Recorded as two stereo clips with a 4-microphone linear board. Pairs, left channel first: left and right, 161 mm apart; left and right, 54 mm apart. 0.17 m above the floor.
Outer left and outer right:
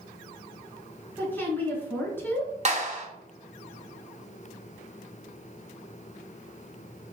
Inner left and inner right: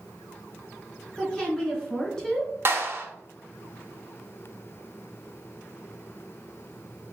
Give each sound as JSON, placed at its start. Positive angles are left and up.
{"t": 1.2, "sound": "a woman speaking", "side_deg": 15, "distance_m": 1.9}
{"t": 2.6, "sound": "a clap", "side_deg": -45, "distance_m": 1.4}